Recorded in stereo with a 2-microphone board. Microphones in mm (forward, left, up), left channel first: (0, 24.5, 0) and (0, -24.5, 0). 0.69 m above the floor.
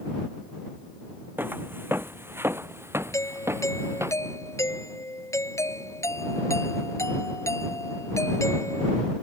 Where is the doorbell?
85° left.